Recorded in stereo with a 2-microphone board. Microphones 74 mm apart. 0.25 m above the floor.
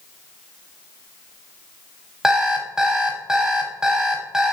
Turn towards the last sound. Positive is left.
turn(degrees=-10)  # may be behind; listen again after turning